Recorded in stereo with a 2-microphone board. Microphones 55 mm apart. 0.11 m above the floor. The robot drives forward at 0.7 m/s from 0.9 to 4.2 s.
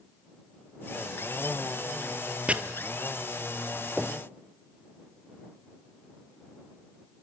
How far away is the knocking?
About 1.8 m.